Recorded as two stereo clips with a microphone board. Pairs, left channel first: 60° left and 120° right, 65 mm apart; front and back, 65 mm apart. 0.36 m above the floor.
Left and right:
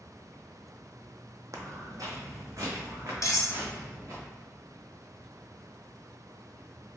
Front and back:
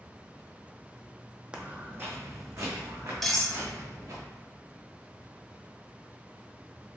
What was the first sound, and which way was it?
Footsteps, 110° right.